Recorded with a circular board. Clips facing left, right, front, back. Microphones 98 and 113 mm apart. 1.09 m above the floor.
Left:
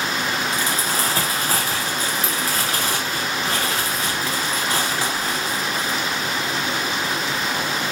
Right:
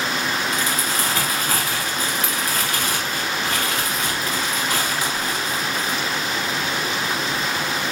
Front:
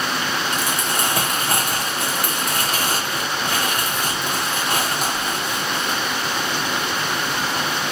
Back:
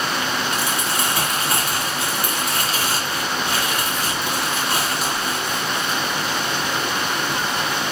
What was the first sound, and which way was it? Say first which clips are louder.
Crumpling: even, even; 35° left.